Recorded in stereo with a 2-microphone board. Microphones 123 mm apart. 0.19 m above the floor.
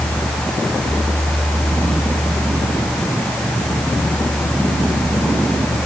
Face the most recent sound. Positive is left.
No sound to turn to.